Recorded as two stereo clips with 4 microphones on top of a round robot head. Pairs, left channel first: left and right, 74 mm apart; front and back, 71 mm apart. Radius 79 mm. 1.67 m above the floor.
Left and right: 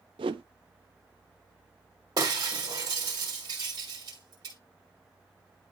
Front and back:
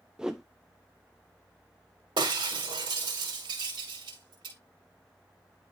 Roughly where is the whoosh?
Right.